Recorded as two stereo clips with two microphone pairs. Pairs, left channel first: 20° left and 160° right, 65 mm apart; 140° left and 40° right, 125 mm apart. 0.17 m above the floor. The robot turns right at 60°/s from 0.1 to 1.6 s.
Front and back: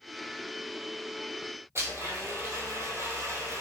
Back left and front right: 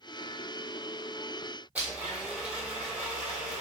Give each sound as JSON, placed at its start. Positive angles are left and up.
{"t": 1.8, "sound": "a blender", "azimuth_deg": -120, "distance_m": 1.1}